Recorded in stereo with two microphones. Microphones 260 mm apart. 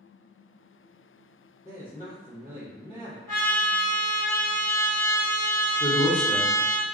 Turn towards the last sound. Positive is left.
turn(degrees=15)  # may be behind; listen again after turning